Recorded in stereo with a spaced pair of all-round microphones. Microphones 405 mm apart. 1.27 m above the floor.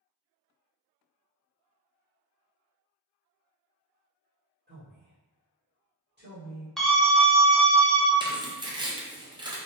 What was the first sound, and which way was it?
A man speaking, 25° right (ahead or behind).